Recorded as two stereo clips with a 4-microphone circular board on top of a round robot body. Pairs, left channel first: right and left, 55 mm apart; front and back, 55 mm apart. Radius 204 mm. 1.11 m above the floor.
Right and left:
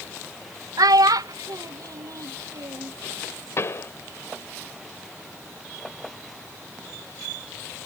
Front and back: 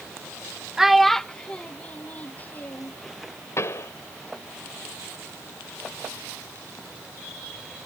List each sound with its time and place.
0.8 s a child speaking: 100° left; by 2.9 s 60° left
3.6 s a pop: 45° right